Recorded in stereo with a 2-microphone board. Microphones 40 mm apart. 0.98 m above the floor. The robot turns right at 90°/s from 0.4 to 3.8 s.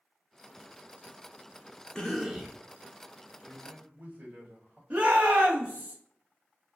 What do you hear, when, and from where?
1.9 s a cough: 155° left, 0.5 m; by 2.6 s 150° right, 0.5 m
3.4 s a man speaking: 160° right, 1.2 m; by 4.8 s 130° right, 1.2 m
4.9 s a shout: 35° right (ahead or behind), 0.9 m